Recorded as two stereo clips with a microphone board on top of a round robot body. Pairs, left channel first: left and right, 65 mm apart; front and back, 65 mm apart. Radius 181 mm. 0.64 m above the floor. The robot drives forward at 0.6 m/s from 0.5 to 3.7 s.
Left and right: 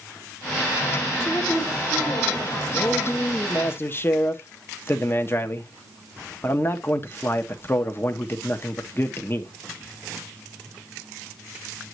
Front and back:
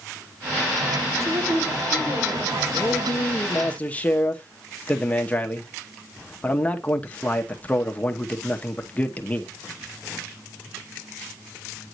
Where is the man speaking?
35° left, 1.6 m; by 9.5 s 55° left, 1.3 m.